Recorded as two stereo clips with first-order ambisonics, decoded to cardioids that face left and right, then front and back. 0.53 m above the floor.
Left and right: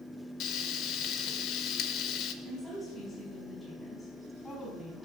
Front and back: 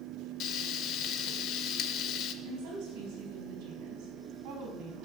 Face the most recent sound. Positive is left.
turn(degrees=165)